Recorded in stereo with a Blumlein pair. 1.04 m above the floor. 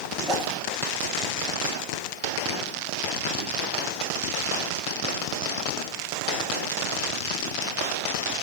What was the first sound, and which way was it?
A whoosh, straight ahead.